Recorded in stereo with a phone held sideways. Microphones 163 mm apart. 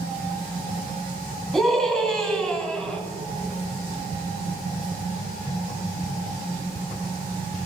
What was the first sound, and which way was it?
A scream, centre (ahead or behind).